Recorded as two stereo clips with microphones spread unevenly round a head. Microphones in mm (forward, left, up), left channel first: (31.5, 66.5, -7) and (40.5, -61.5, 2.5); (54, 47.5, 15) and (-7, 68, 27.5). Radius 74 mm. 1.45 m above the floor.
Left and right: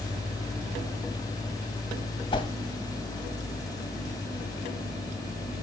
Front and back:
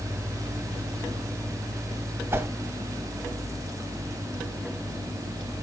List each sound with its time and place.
2.3 s a whoosh: 145° left, 1.8 m